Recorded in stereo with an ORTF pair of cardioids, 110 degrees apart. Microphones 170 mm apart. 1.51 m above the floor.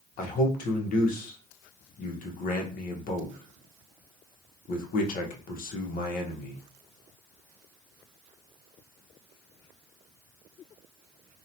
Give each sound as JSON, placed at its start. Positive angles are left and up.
{"t": 0.2, "sound": "a man speaking", "azimuth_deg": 60, "distance_m": 0.9}